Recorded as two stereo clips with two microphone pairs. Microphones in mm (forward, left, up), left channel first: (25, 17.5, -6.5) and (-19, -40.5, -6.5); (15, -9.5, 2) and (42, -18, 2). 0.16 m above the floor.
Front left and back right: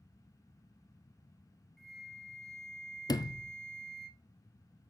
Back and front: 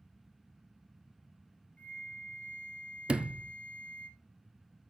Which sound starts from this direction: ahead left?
A sliding door, at 3.1 s.